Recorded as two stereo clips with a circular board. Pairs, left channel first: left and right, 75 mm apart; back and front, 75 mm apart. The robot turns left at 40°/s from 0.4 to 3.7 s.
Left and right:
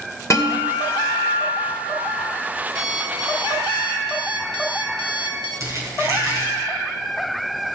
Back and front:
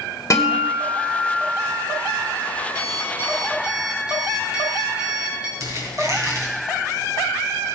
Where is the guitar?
135° left, 2.5 m; by 2.2 s 65° left, 2.5 m.